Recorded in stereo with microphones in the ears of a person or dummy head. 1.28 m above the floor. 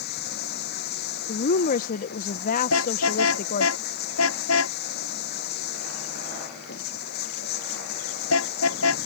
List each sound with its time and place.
0.0 s running water: 55° left (ahead or behind)
1.3 s a woman speaking: 50° left (ahead or behind)
2.7 s a car horn: 85° left